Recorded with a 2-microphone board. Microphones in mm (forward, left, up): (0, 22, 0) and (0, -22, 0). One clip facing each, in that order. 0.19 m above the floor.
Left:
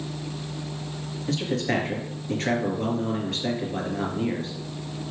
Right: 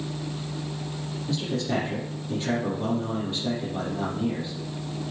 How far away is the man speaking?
About 3.5 m.